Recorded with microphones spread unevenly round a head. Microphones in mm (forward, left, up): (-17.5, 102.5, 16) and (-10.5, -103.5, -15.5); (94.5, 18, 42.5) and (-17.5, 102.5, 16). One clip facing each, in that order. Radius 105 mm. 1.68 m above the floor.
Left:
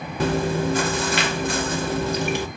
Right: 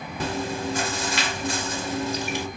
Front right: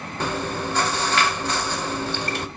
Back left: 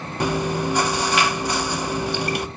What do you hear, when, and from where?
0.2 s chewing: 60° left, 0.5 m